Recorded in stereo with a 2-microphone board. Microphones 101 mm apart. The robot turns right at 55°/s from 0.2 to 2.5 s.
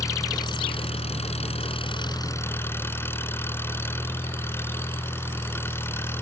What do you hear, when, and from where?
0.0 s an engine running: 30° left; by 6.2 s 155° left